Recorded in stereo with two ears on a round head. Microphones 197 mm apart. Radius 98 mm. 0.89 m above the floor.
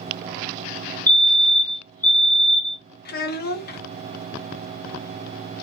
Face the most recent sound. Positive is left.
turn(degrees=45)  # may be behind; listen again after turning